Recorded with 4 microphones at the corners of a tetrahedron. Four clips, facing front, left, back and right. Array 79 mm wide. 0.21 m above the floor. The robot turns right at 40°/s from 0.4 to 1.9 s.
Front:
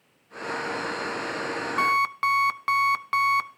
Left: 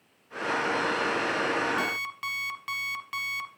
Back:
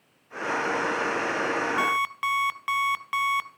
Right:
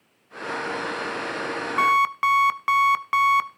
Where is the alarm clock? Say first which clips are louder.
Right 12 dB, front 3 dB; 75° right, 1.0 m; by 3.5 s 70° right, 1.0 m.